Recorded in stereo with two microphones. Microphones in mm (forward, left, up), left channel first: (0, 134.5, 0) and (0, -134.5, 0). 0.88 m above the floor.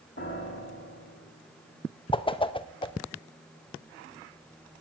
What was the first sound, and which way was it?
A piano, 50° left (ahead or behind).